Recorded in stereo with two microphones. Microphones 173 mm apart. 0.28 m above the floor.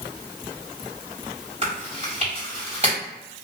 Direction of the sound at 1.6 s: 35° right (ahead or behind).